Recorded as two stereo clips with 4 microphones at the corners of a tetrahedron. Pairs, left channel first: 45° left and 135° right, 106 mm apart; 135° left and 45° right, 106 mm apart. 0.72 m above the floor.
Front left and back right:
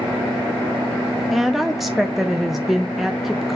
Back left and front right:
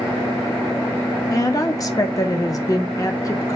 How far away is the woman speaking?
About 0.6 m.